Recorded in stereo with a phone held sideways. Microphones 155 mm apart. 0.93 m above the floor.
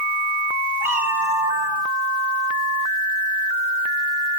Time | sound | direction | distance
0.8 | a cat meowing | 15° right (ahead or behind) | 7.5 m